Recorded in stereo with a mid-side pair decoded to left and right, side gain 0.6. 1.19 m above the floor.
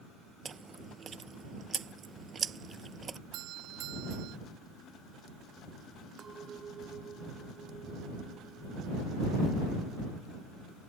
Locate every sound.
0.5 s chewing: 35° right
3.3 s a doorbell: 70° right
6.2 s a clink: 35° right